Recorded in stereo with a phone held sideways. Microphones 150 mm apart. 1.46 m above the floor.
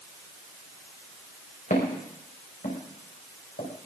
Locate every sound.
1.7 s footsteps: 65° left (ahead or behind), 6 m; by 3.7 s 75° left (ahead or behind), 6 m